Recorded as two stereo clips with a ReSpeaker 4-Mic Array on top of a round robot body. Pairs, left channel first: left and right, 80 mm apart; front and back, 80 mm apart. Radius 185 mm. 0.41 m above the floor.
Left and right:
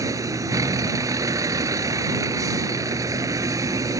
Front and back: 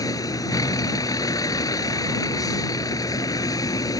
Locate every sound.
0.0 s a vehicle: 45° right